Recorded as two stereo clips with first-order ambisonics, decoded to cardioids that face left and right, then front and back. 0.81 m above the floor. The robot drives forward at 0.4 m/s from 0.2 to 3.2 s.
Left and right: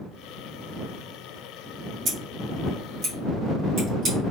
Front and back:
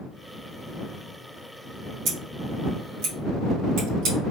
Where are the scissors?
150° right, 1.7 m; by 4.2 s 155° right, 2 m.